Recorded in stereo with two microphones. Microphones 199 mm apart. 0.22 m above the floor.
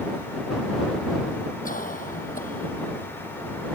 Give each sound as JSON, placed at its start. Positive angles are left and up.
{"t": 1.6, "sound": "a cough", "side_deg": 40}